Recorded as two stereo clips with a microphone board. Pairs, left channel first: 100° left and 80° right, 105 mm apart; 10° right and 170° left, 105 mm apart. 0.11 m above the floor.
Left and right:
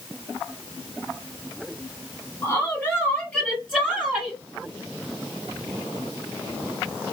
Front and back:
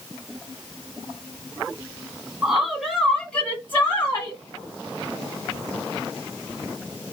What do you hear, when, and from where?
2.4 s a woman speaking: 110° left, 1.7 m; by 4.4 s 10° left, 1.9 m